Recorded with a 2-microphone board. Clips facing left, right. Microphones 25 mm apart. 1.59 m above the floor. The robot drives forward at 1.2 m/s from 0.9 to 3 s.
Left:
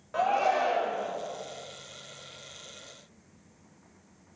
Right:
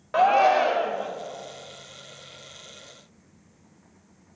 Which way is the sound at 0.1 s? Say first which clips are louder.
Right 7 dB; 35° right (ahead or behind).